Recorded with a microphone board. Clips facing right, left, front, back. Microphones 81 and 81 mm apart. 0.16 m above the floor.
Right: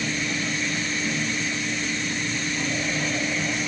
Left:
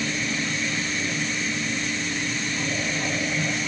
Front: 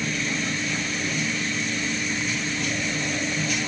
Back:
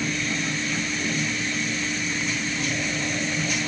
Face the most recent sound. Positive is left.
No sound to turn to.